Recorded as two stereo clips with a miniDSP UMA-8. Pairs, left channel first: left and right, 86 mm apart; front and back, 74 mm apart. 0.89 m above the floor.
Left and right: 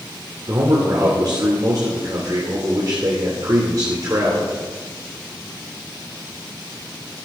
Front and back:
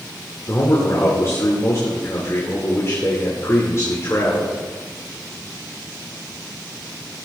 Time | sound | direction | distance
0.5 | a man speaking | 50° right | 2.5 m